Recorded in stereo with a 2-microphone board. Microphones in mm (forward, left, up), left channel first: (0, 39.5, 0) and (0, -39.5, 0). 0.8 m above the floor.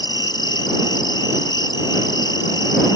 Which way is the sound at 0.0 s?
65° left (ahead or behind).